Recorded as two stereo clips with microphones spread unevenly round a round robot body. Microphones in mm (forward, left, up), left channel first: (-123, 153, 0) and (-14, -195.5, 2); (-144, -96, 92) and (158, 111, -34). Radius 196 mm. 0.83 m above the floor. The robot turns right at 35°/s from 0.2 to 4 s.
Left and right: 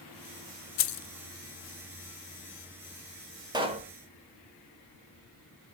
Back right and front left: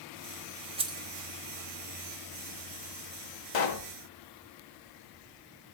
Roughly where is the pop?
Behind right.